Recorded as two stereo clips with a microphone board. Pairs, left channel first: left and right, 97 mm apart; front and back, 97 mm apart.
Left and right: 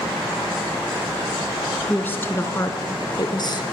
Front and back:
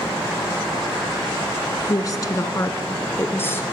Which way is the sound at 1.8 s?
20° left.